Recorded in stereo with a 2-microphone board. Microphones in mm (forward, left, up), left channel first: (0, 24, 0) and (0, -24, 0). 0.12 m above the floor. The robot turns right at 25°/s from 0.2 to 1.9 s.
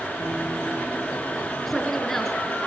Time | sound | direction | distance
1.7 | a woman speaking | 5° left (ahead or behind) | 1.2 m